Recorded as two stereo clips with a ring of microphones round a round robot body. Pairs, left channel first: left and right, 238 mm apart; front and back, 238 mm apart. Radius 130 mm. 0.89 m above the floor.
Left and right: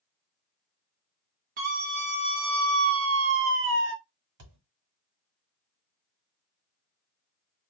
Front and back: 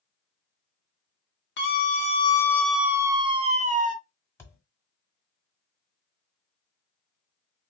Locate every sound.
1.6 s a scream: 35° right, 0.8 m; by 3.9 s 125° right, 1.1 m
4.4 s a thud: 80° right, 1.5 m